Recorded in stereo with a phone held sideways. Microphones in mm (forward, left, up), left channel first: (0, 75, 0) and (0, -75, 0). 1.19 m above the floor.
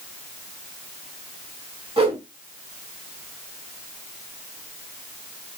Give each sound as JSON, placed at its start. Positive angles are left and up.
{"t": 2.0, "sound": "a whoosh", "side_deg": -40, "distance_m": 2.5}